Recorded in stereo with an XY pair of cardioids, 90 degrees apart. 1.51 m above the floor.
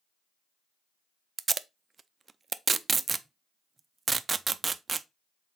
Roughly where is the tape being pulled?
Ahead right.